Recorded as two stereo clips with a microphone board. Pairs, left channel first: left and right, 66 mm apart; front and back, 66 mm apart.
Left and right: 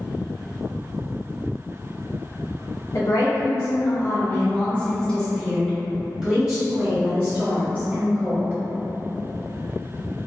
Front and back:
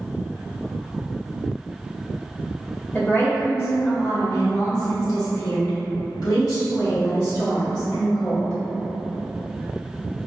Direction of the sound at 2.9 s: 65° left.